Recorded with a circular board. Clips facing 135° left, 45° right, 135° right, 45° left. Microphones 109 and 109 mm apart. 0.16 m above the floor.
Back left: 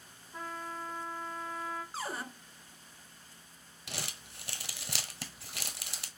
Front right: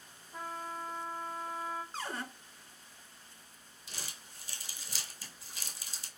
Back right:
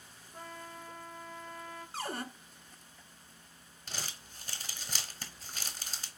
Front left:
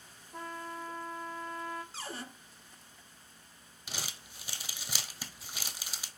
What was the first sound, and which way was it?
A trumpet, 35° left.